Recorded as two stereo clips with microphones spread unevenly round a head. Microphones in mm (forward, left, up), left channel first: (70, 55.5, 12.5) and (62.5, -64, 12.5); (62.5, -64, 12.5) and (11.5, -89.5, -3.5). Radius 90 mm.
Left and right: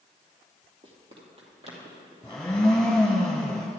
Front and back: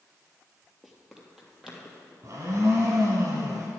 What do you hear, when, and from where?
0.8 s running footsteps: 60° right, 2 m; by 2.1 s 65° right, 4 m
2.2 s a blender: 155° left, 1.7 m